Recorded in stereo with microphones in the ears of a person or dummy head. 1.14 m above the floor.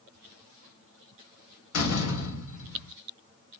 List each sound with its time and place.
1.7 s a door slam: 80° left, 1.9 m